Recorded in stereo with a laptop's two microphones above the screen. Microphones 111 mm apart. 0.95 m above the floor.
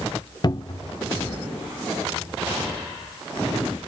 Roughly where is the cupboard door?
Left.